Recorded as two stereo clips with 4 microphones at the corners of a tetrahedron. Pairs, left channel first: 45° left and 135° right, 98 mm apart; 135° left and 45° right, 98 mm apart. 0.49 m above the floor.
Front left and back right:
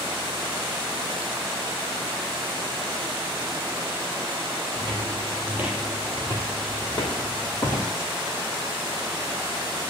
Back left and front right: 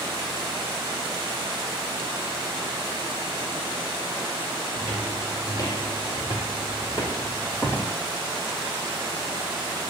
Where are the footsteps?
160° right, 0.9 m; by 7.9 s 70° left, 1.5 m.